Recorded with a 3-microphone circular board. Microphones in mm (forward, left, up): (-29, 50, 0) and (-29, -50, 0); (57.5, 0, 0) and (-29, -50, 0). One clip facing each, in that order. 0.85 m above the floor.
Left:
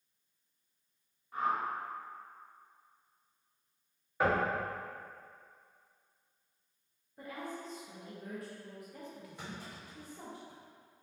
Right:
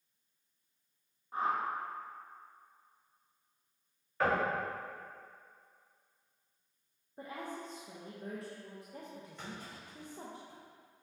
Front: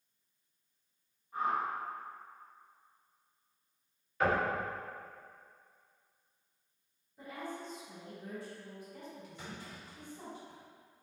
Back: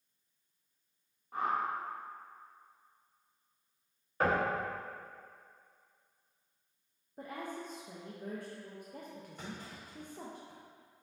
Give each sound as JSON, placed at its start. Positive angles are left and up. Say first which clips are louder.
{"t": 1.3, "sound": "a whoosh", "louder": "even, even", "azimuth_deg": -150, "distance_m": 0.8}
{"t": 4.2, "sound": "knocking", "louder": "left 1 dB, even", "azimuth_deg": 165, "distance_m": 1.6}
{"t": 7.2, "sound": "a woman speaking", "louder": "even, back 1 dB", "azimuth_deg": -145, "distance_m": 0.5}
{"t": 9.4, "sound": "a clunk", "louder": "left 1 dB, back 3 dB", "azimuth_deg": 170, "distance_m": 1.4}